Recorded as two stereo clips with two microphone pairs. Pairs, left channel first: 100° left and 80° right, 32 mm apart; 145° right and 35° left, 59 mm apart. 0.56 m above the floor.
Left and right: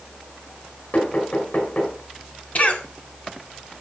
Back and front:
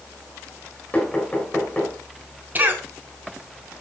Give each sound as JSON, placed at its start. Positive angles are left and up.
{"t": 0.9, "sound": "knocking", "azimuth_deg": 135, "distance_m": 6.0}
{"t": 2.5, "sound": "a cough", "azimuth_deg": 80, "distance_m": 1.9}